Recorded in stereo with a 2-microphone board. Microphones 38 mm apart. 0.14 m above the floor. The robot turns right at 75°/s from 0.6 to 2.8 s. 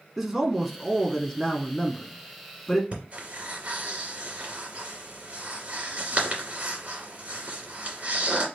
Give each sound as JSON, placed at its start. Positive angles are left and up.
{"t": 0.2, "sound": "a man speaking", "side_deg": -5, "distance_m": 1.1}
{"t": 2.9, "sound": "breathing", "side_deg": -40, "distance_m": 2.0}